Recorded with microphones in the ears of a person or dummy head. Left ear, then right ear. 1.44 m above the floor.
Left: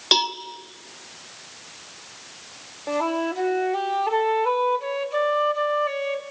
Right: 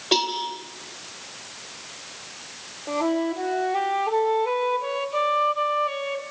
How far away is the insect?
No insect in this recording.